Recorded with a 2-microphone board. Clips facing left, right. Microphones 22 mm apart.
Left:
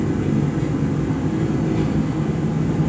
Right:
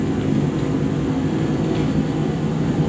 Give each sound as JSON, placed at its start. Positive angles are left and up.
{"t": 0.0, "sound": "an engine running", "side_deg": -65, "distance_m": 4.0}